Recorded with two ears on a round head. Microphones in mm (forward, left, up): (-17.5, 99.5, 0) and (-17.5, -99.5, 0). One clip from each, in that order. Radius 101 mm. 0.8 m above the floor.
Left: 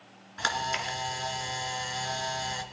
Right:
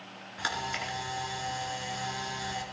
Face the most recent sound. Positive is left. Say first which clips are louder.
# left 3 dB
turn(degrees=25)  # may be behind; listen again after turning